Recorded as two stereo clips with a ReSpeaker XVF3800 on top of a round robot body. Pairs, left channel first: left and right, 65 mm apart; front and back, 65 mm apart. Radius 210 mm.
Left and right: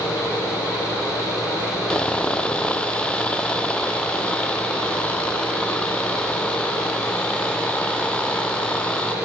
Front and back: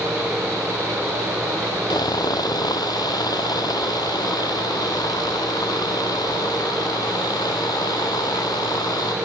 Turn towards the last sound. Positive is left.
turn(degrees=15)